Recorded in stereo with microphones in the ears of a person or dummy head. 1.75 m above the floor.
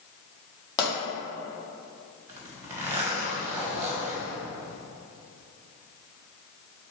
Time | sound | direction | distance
0.8 | a pop | 25° left (ahead or behind) | 2.0 m
2.3 | a zipper | 10° right (ahead or behind) | 1.4 m